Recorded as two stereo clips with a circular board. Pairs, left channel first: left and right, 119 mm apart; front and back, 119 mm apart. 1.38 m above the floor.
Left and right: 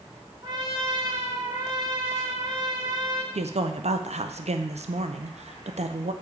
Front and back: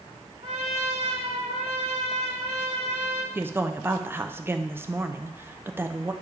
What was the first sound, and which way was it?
A trumpet, 145° right.